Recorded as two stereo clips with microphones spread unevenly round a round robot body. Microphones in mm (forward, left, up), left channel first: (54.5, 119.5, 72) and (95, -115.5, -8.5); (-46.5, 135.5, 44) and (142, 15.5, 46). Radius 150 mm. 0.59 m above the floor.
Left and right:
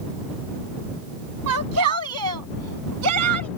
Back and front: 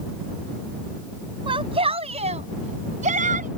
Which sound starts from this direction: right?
A shout, at 1.5 s.